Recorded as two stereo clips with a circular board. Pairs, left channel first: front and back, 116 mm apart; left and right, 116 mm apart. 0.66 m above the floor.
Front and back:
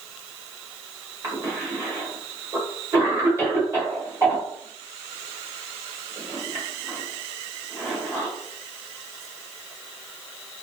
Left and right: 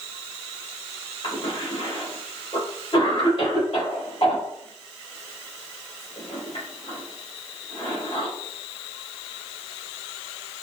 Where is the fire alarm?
No fire alarm in this recording.